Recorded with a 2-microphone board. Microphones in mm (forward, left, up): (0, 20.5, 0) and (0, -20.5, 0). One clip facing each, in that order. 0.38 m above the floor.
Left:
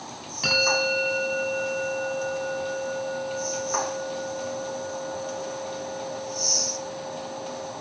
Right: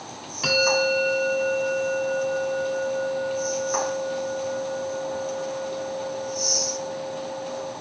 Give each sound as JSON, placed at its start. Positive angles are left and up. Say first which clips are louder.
{"t": 0.4, "sound": "a bell", "louder": "right 2 dB", "side_deg": -5, "distance_m": 7.0}